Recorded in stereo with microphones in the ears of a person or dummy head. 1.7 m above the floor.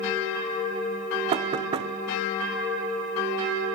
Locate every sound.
1.3 s knocking: 35° right (ahead or behind), 0.8 m